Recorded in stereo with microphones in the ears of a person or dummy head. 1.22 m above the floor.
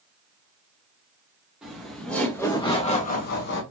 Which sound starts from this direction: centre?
Laughter, at 1.6 s.